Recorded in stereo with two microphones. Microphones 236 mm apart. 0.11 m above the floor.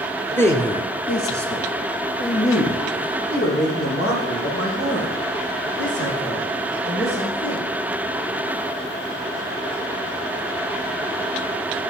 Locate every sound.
0.4 s a man speaking: 5° left (ahead or behind), 1.7 m; by 7.6 s 80° left, 11.5 m